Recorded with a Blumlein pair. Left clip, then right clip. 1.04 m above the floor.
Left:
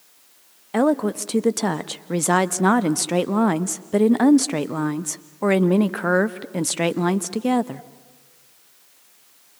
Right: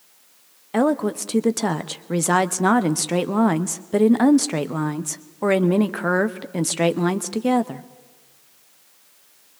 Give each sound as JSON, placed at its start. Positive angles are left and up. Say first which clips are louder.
{"t": 0.7, "sound": "a woman speaking", "louder": "left 1 dB", "azimuth_deg": 0, "distance_m": 0.8}